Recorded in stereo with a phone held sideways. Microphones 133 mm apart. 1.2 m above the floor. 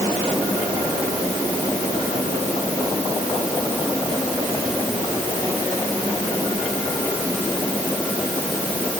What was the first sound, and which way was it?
Only background noise.